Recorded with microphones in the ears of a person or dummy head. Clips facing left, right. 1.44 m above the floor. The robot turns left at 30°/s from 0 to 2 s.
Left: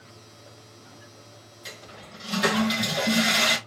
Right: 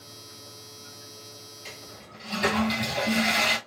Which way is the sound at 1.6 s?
15° left (ahead or behind).